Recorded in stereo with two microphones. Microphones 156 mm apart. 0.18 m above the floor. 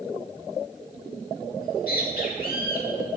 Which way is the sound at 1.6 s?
65° left (ahead or behind).